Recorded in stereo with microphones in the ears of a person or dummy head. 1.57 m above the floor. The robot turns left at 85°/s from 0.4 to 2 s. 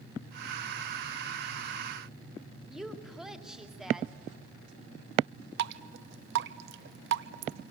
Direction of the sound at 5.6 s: 70° right (ahead or behind).